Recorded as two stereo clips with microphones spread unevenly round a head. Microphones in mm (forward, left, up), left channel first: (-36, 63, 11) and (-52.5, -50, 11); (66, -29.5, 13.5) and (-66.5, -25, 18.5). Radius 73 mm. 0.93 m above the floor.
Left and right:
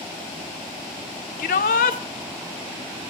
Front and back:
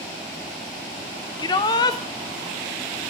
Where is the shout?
65° left, 2.5 m.